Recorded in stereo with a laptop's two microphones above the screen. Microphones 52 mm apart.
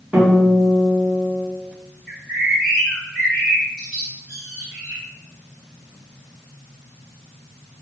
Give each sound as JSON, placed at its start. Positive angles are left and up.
{"t": 0.1, "sound": "a guitar", "side_deg": -15, "distance_m": 1.1}
{"t": 2.1, "sound": "a bird", "side_deg": 20, "distance_m": 1.6}